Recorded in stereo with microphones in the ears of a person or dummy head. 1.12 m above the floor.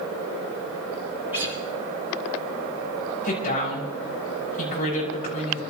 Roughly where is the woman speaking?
Left.